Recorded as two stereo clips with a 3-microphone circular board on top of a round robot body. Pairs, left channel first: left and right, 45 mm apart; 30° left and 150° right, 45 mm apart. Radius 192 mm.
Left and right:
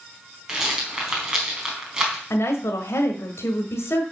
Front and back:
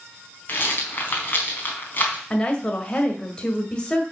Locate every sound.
0.5 s a rattle: 15° right, 4 m
2.3 s a woman speaking: 100° left, 2 m